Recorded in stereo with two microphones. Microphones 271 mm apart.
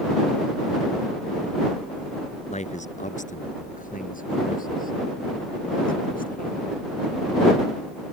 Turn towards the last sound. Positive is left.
turn(degrees=30)  # may be behind; listen again after turning